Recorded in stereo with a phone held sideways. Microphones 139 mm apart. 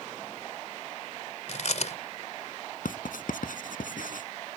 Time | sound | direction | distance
1.5 | chewing | 60° left (ahead or behind) | ?
2.9 | writing | 80° left | ?